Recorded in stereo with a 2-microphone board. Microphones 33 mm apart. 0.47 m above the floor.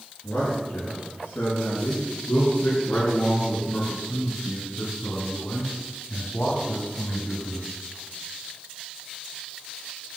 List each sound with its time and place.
0.2 s a man speaking: 75° left (ahead or behind), 6.5 m; by 7.7 s 70° left (ahead or behind), 3 m